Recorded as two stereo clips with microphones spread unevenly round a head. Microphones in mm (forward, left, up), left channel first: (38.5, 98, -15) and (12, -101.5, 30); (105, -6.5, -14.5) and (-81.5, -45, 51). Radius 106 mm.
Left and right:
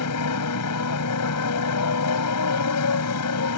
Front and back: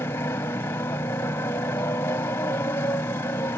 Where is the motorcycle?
95° left.